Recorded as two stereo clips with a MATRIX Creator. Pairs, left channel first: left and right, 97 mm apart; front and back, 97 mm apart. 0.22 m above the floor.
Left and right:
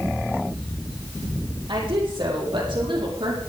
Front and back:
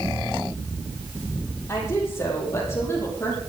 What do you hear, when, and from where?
1.7 s a woman speaking: 60° right, 8.5 m